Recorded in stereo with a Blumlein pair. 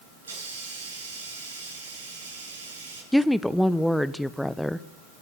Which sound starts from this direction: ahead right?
A hiss, at 0.2 s.